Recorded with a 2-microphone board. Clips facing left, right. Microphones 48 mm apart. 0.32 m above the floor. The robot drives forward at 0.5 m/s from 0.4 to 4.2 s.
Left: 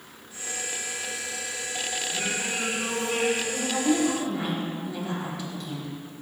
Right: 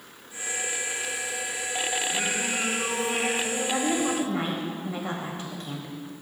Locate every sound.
2.1 s singing: 30° right (ahead or behind), 3 m; by 3.3 s 35° right (ahead or behind), 2.5 m
3.4 s a woman speaking: 40° right (ahead or behind), 1.4 m